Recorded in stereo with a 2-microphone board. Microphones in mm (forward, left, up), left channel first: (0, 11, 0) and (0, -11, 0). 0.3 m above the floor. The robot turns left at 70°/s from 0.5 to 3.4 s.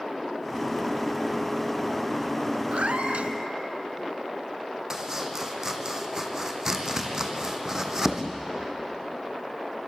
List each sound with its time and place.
2.7 s a cat meowing: 65° right, 1.1 m; by 3.3 s 110° right, 1.1 m
4.9 s chopping: 20° right (ahead or behind), 2.5 m